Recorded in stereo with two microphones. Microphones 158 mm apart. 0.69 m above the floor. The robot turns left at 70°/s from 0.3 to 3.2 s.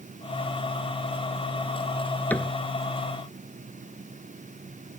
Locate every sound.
2.3 s a cupboard door: 10° left (ahead or behind); by 2.5 s 5° right (ahead or behind)